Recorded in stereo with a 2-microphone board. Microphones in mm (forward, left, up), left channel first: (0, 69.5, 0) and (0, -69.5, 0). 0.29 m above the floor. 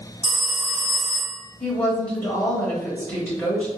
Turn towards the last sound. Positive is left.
turn(degrees=10)  # may be behind; listen again after turning